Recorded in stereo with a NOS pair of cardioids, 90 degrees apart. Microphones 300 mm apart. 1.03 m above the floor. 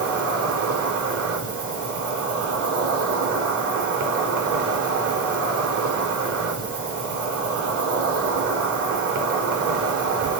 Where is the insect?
50° right, 4 m.